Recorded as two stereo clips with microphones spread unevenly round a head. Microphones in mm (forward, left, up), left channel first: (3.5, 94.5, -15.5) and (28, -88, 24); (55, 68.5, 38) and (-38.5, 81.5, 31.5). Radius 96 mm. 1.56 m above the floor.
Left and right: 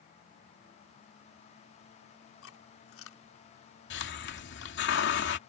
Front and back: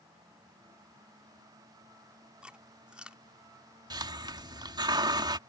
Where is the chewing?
90° left.